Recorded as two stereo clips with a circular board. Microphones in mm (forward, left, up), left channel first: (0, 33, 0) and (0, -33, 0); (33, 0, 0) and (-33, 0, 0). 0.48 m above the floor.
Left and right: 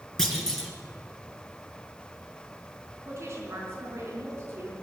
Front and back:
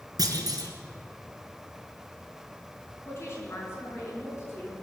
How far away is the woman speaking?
About 4.5 m.